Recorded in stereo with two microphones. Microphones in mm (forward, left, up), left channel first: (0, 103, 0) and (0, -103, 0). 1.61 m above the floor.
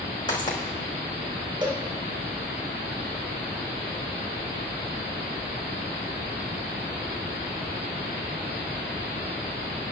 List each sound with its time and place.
0.3 s footsteps: 25° left (ahead or behind), 4.5 m
1.6 s a cowbell: 25° right (ahead or behind), 2.5 m